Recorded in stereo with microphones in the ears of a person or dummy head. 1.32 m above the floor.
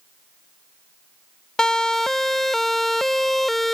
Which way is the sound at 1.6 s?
Centre (ahead or behind).